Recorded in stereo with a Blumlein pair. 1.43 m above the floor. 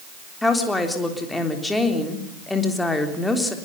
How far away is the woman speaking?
About 3.5 m.